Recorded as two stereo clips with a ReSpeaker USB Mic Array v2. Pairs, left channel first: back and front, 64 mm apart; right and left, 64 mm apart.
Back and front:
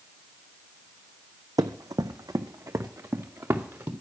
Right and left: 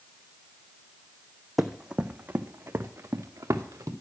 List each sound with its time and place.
1.6 s running footsteps: 5° left, 0.7 m; by 3.9 s 50° left, 1.5 m